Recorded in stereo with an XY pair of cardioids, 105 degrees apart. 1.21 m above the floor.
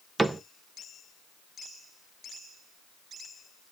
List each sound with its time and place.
0.2 s a cupboard door: 20° right, 0.6 m